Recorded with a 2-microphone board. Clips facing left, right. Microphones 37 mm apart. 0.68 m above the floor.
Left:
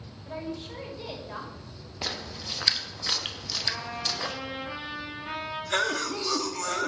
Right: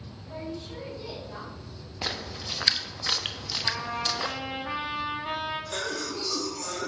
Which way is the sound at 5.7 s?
50° left (ahead or behind).